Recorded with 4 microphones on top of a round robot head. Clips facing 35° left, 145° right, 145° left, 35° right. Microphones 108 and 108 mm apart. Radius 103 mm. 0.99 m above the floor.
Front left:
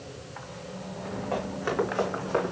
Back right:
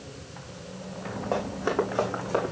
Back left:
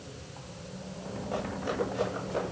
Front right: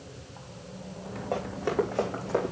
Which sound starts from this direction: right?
Running footsteps, at 1.3 s.